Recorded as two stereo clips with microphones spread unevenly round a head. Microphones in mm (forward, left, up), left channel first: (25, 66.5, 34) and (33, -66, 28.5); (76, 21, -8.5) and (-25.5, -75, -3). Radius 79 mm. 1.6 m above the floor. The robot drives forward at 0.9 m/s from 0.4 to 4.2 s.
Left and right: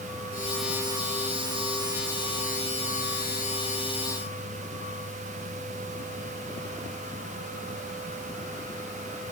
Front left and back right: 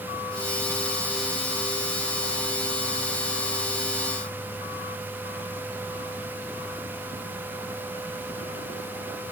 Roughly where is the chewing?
I don't hear chewing.